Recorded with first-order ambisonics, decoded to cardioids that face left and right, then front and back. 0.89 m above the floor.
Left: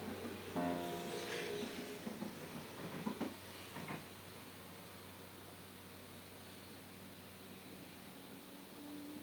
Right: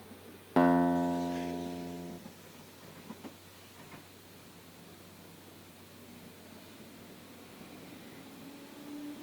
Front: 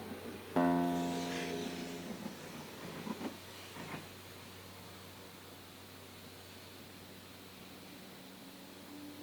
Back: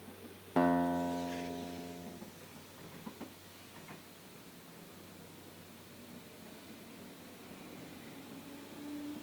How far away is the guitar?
About 1.2 m.